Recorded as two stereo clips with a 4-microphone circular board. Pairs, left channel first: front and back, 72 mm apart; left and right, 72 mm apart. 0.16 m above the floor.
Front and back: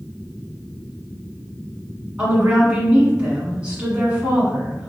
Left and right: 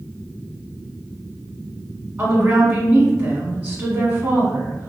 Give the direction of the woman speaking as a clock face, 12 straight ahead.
4 o'clock.